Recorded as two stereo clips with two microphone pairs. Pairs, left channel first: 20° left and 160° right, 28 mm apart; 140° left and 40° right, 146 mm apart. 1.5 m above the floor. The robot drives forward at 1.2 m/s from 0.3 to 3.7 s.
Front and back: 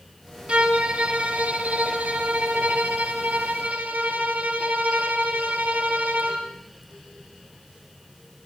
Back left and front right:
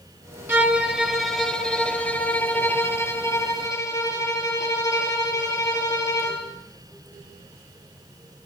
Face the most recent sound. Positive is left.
turn(degrees=-150)